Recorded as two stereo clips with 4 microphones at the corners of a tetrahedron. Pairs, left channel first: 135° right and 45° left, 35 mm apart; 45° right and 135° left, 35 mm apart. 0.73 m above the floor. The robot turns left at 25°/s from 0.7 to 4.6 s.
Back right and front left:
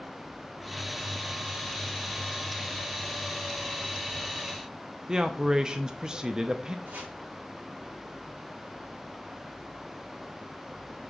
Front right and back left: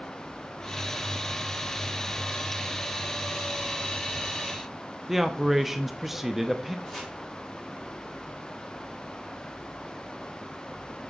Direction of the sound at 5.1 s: 65° left.